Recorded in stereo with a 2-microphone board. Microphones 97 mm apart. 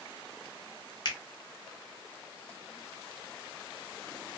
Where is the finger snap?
45° left (ahead or behind), 0.7 m.